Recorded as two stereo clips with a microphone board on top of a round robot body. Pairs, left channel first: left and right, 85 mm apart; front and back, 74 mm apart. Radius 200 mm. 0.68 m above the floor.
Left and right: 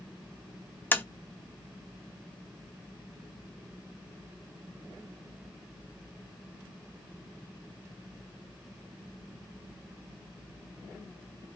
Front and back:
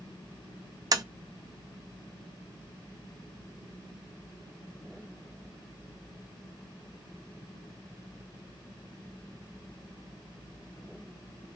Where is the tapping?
155° left, 0.7 m.